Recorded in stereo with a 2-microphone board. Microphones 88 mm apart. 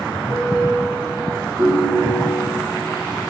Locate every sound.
0.3 s a piano: 15° left (ahead or behind), 3 m
1.6 s a ringtone: 45° right (ahead or behind), 4.5 m